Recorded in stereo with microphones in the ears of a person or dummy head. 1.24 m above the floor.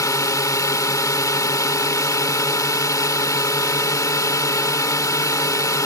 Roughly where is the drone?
Left.